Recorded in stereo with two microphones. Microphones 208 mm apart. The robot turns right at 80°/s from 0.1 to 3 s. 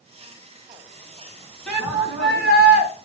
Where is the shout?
175° left, 3 m; by 2.9 s 90° right, 3 m.